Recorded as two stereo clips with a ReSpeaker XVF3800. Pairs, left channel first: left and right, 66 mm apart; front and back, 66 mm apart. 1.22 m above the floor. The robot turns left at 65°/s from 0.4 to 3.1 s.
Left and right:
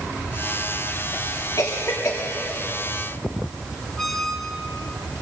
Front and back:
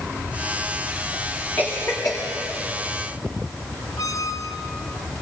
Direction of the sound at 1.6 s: 60° left.